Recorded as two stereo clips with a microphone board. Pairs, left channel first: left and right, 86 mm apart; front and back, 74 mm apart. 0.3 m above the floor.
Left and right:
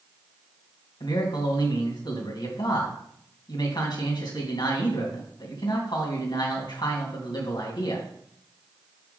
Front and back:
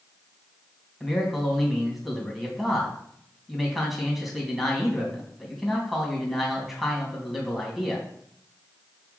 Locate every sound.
1.0 s a man speaking: 90° left, 2.5 m